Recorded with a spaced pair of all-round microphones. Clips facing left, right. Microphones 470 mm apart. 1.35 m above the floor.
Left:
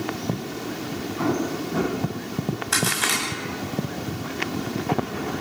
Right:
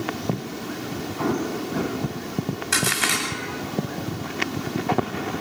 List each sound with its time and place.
1.2 s an explosion: 35° left (ahead or behind), 9.5 m
2.7 s a crack: 40° right (ahead or behind), 9 m